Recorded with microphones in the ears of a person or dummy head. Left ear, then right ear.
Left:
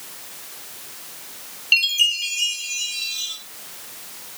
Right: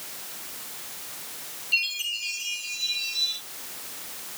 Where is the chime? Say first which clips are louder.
Left 9 dB; 70° left (ahead or behind), 2 m.